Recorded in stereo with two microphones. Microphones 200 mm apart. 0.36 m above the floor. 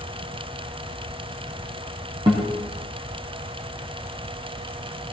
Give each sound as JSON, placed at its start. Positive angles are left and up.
{"t": 2.3, "sound": "a guitar", "side_deg": -25, "distance_m": 2.5}